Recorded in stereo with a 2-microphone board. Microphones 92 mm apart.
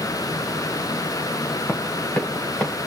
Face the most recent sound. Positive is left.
turn(degrees=5)  # may be behind; listen again after turning